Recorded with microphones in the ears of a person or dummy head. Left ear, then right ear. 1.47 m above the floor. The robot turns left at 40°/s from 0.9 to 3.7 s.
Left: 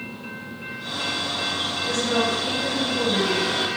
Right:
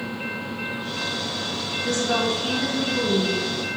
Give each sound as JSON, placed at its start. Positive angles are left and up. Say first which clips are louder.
{"t": 1.8, "sound": "a woman speaking", "louder": "right 1 dB", "azimuth_deg": -120, "distance_m": 1.9}